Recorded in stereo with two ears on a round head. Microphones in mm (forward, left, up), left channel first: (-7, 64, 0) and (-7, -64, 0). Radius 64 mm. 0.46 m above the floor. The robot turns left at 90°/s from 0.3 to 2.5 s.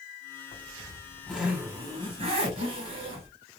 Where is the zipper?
70° left, 1.7 m; by 3.3 s 110° right, 1.7 m.